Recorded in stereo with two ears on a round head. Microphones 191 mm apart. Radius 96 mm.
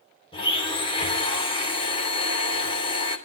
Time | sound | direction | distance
0.3 | a blender | 25° left (ahead or behind) | 3 m